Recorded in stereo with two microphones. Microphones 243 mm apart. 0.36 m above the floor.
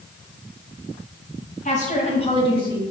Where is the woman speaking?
30° left (ahead or behind), 2 m; by 2.8 s 15° left (ahead or behind), 1.4 m.